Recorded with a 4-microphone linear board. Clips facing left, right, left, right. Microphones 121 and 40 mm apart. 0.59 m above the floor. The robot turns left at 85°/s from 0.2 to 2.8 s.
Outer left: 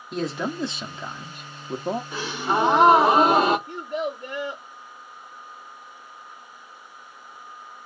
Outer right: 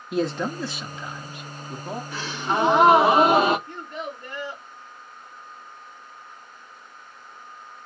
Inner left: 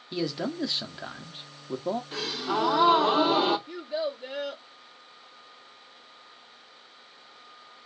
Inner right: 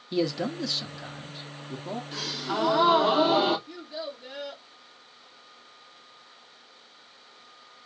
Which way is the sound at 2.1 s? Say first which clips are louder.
Outer right 2 dB, inner left 2 dB; 20° left (ahead or behind).